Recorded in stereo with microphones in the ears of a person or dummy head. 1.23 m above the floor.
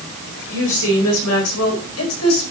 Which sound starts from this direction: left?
A woman speaking, at 0.5 s.